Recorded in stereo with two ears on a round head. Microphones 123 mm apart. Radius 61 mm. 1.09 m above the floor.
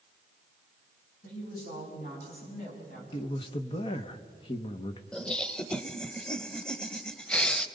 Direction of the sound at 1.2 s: 75° left (ahead or behind).